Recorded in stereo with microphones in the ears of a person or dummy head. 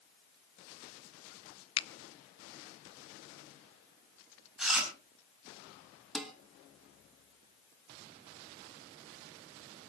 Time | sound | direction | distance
1.8 | a finger snap | 30° left (ahead or behind) | 0.5 m
4.6 | chewing | 5° right (ahead or behind) | 5 m
6.2 | dishes clattering | centre (ahead or behind) | 2.5 m